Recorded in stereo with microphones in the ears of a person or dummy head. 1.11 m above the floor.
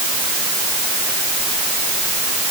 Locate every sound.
Only background noise.